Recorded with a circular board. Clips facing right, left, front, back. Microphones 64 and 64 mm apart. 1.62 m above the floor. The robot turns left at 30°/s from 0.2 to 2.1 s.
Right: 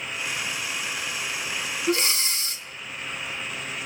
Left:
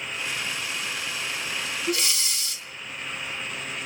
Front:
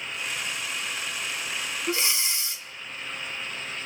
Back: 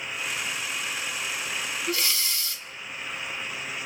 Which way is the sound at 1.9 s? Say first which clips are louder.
Right 5 dB, front 3 dB; 50° right.